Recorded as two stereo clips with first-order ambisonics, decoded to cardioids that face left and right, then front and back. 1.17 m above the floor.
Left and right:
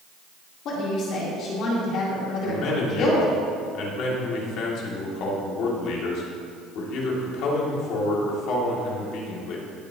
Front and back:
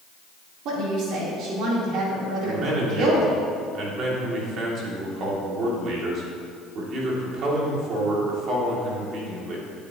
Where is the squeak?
No squeak in this recording.